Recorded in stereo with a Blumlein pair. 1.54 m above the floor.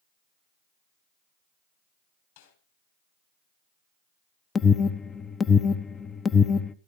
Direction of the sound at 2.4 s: 55° left.